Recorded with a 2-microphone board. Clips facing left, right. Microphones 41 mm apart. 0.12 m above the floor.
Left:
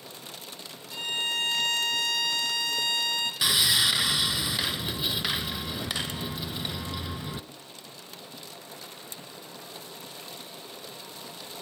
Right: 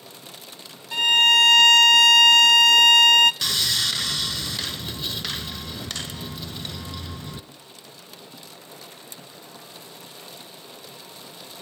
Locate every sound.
0.9 s a violin: 75° right (ahead or behind), 0.5 m
3.4 s sawing: 10° left (ahead or behind), 0.7 m